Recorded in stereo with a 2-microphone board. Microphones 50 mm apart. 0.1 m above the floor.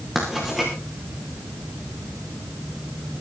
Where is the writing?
5° right (ahead or behind), 7 m.